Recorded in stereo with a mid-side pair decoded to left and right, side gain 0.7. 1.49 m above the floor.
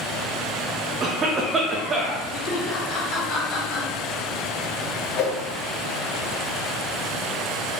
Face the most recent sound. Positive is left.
turn(degrees=45)